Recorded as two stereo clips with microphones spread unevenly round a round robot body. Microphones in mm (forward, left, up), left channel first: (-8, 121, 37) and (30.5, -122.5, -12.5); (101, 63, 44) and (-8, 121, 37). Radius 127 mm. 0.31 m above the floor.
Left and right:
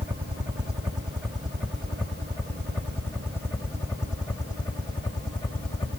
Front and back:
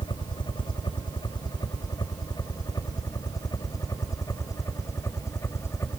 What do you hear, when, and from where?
0.0 s a helicopter: 15° right; by 6.0 s 30° left